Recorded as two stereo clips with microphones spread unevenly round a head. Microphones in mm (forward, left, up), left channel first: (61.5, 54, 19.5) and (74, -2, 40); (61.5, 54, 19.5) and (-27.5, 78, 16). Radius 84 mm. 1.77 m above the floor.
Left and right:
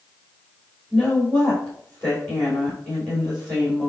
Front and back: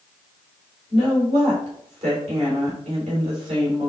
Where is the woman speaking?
175° right, 4 m.